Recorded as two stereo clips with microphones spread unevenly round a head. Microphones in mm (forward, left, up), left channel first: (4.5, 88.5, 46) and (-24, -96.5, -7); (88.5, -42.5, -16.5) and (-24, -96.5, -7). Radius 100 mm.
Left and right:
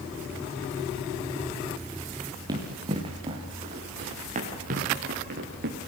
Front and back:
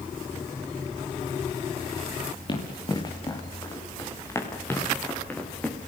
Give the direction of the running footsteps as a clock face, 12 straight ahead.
1 o'clock.